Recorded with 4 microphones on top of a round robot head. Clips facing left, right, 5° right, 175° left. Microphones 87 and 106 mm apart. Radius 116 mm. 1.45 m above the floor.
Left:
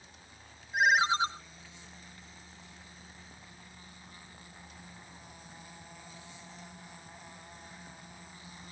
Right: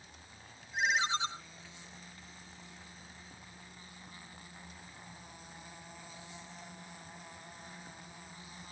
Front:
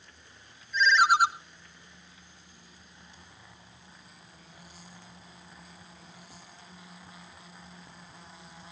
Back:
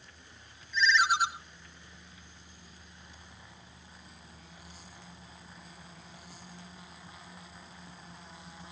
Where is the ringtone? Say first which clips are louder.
Left 7 dB, front 4 dB; 35° left, 1.0 m.